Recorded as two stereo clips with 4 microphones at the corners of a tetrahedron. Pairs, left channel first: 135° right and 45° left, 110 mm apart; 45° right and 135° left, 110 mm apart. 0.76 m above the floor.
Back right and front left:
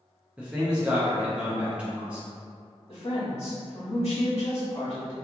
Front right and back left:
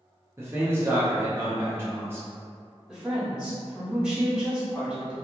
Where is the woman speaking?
145° right, 1.5 m.